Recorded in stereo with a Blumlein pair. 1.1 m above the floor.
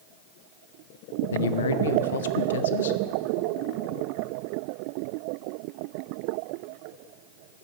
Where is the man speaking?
65° left, 0.6 m.